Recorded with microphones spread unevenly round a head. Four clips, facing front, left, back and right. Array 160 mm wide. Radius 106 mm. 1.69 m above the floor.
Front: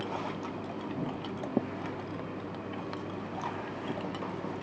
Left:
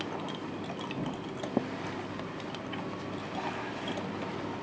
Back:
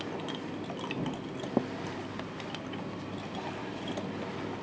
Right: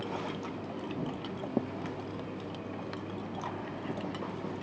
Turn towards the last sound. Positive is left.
No sound to turn to.